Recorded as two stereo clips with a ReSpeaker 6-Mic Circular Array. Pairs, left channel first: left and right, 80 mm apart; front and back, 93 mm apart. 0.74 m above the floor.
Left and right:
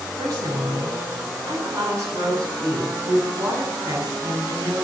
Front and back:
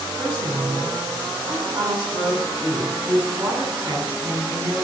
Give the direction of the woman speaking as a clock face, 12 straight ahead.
5 o'clock.